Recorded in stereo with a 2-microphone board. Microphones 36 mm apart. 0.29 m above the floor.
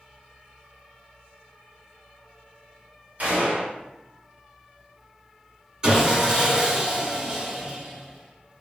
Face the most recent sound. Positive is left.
turn(degrees=-20)  # may be behind; listen again after turning